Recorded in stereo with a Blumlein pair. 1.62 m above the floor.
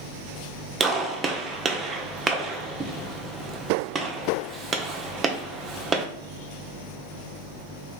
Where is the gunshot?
15° right, 0.8 m.